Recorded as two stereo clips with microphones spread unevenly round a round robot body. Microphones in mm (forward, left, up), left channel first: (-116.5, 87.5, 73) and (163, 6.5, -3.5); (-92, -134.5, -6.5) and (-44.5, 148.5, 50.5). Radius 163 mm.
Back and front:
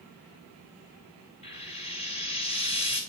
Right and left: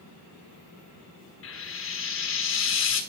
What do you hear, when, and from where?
1.4 s frying: 115° right, 2 m